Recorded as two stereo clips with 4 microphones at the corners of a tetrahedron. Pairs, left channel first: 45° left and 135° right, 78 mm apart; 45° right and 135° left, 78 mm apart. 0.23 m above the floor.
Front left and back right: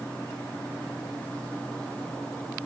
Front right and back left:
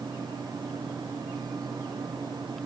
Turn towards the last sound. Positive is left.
No sound to turn to.